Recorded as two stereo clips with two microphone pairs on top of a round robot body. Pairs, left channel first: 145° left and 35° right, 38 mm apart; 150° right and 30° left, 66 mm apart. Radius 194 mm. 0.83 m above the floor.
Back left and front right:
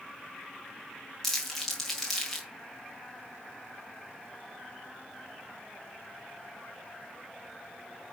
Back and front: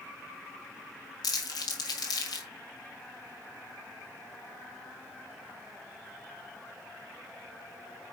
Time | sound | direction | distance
1.2 | crumpling | 130° right | 1.8 m